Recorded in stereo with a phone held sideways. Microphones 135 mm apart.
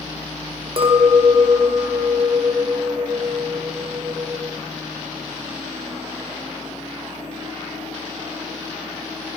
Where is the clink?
45° right (ahead or behind), 2.5 m.